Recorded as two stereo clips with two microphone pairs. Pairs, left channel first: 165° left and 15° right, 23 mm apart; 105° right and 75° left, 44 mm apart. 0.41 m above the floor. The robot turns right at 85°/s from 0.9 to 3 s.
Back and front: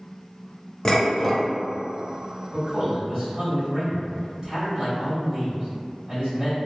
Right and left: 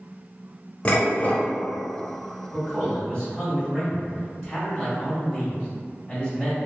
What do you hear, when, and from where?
0.8 s dishes clattering: 150° right, 0.7 m; by 1.5 s 105° right, 0.7 m
2.5 s a man speaking: 110° right, 1.9 m; by 6.5 s 70° right, 1.9 m